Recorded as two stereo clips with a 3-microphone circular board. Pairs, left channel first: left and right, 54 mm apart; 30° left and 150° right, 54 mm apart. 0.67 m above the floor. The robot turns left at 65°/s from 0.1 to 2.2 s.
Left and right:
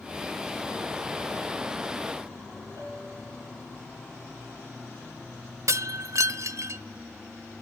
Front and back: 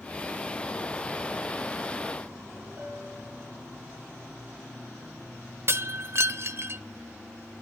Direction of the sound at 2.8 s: 95° right.